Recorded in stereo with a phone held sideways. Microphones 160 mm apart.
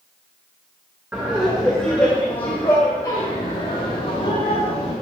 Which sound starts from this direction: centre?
Laughter, at 1.1 s.